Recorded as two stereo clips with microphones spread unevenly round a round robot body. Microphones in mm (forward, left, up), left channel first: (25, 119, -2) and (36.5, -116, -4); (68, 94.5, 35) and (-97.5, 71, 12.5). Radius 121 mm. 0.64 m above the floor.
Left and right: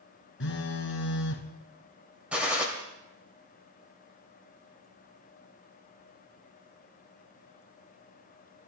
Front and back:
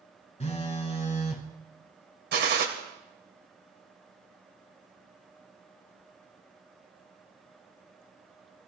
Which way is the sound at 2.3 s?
175° right.